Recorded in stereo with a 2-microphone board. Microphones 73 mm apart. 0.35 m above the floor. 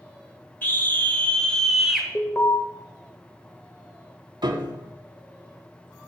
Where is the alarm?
30° left (ahead or behind), 0.9 m.